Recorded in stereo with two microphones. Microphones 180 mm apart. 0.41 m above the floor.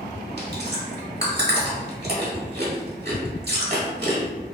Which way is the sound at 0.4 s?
65° right (ahead or behind).